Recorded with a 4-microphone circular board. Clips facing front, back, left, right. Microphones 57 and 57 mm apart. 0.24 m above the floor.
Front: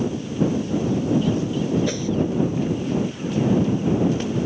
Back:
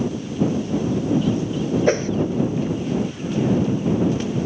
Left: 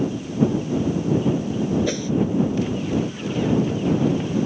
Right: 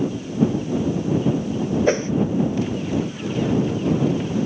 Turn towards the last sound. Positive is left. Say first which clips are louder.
# back 6 dB, right 6 dB
turn(degrees=-140)